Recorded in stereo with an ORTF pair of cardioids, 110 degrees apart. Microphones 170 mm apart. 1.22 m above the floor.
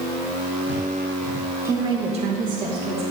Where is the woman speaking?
15° right, 1.1 m; by 3.0 s 70° right, 1.7 m.